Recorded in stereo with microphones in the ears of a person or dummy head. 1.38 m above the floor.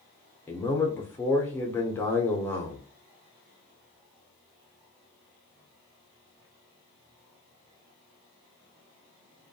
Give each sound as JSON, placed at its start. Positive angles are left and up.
{"t": 0.5, "sound": "a man speaking", "side_deg": 10, "distance_m": 0.7}